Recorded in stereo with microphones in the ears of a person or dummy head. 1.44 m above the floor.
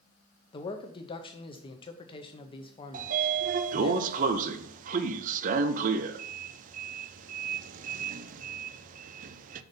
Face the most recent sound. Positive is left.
turn(degrees=-45)  # may be behind; listen again after turning